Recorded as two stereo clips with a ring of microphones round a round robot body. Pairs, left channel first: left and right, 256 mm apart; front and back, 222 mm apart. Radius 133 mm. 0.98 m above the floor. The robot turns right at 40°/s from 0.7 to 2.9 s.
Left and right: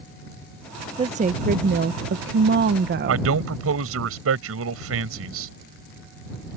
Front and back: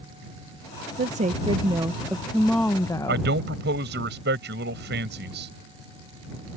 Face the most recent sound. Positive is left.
turn(degrees=-130)